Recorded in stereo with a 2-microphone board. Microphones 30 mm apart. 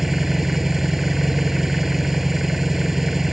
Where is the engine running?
15° right (ahead or behind).